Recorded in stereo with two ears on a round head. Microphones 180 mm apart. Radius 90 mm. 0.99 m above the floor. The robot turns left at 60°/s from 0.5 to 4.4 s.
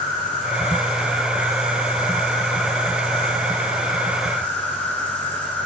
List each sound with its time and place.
0.0 s an insect: 45° left, 2.5 m; by 5.7 s 170° left, 2.5 m